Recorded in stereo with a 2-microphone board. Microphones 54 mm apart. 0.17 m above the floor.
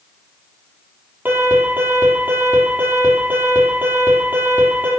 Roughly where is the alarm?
Right.